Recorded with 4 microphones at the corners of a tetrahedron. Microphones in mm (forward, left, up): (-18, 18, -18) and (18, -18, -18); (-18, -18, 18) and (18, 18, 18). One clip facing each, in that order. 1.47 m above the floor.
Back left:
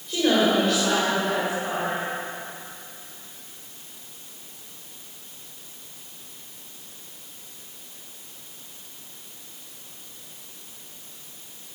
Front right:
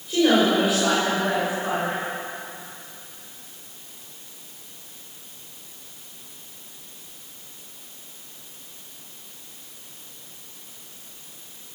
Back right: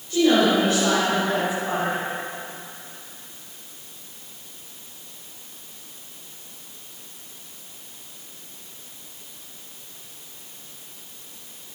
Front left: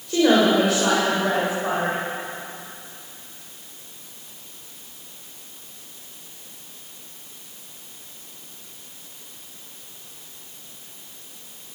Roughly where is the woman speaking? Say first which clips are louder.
Front right 2 dB, front left 1 dB; ahead left.